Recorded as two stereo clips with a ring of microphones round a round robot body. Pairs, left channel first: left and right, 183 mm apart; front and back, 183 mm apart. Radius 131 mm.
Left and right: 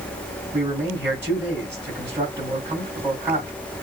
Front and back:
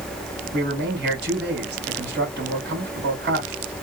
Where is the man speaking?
170° right, 3 m.